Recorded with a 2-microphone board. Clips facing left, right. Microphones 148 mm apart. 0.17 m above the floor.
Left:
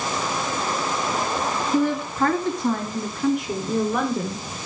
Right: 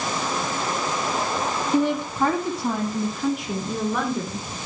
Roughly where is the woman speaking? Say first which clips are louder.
Even; right.